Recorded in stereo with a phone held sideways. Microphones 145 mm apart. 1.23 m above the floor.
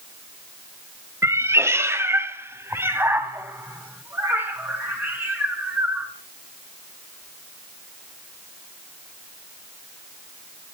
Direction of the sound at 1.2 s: 20° right (ahead or behind).